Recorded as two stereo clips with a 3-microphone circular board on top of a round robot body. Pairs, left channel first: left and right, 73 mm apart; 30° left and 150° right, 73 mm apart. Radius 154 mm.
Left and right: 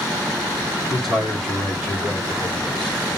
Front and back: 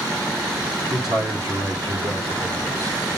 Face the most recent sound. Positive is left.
turn(degrees=165)